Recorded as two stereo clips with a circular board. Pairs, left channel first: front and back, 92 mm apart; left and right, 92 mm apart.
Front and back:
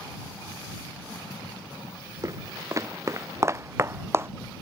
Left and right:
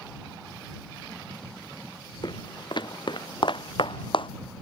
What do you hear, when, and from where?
2.2 s footsteps: 125° left; by 4.3 s 115° left